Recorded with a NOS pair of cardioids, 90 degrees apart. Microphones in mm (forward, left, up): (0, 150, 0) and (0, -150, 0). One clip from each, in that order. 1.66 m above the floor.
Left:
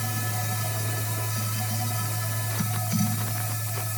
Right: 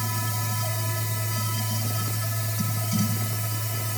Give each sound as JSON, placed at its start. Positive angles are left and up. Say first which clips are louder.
{"t": 0.0, "sound": "a machine running", "louder": "right 1 dB", "azimuth_deg": -5, "distance_m": 1.8}